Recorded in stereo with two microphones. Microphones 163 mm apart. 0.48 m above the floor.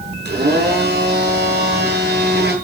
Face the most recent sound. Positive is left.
turn(degrees=-75)  # may be behind; listen again after turning